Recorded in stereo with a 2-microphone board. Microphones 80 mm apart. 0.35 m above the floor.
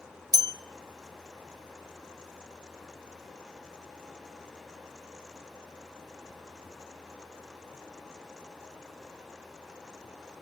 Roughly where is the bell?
Right.